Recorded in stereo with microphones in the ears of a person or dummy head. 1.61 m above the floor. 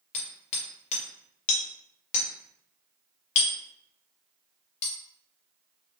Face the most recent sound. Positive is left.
turn(degrees=40)  # may be behind; listen again after turning